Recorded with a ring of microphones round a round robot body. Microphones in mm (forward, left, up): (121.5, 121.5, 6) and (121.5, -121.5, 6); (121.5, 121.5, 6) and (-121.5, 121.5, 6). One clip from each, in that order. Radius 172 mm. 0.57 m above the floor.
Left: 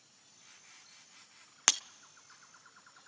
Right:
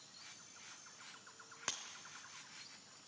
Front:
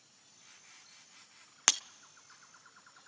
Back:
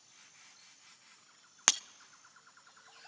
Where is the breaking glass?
95° left, 0.5 m.